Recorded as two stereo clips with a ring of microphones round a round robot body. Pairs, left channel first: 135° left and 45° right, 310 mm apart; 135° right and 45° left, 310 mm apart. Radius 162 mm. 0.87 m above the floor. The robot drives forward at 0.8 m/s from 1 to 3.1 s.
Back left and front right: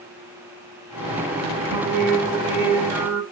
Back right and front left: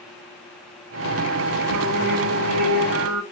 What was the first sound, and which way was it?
Singing, 35° left.